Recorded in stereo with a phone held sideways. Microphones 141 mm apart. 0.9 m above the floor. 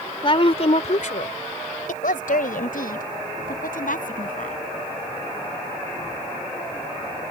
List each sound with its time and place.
0.2 s a woman speaking: 40° left (ahead or behind); by 4.6 s 75° left (ahead or behind)